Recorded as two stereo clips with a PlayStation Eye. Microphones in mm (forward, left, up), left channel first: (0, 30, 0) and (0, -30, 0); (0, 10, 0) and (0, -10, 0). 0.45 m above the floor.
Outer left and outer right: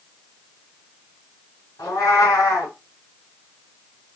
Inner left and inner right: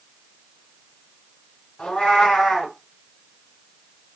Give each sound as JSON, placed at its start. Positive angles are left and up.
{"t": 1.8, "sound": "a cat meowing", "side_deg": 75, "distance_m": 2.5}